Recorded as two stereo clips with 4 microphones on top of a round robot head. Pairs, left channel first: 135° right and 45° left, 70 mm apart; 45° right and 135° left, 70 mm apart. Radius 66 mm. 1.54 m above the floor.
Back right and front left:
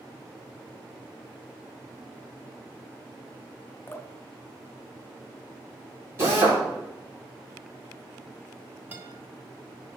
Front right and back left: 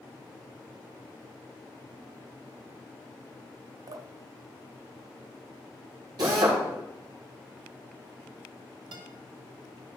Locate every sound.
3.9 s dripping: 165° left, 0.6 m
6.2 s a drill: 100° left, 2.5 m
8.9 s a guitar: 115° left, 0.8 m